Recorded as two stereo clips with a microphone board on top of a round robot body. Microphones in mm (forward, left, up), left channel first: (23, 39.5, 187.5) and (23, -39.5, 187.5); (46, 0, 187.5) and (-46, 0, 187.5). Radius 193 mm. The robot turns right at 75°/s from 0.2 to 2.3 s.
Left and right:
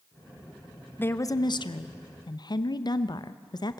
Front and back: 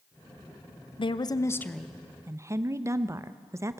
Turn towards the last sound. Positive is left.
turn(degrees=120)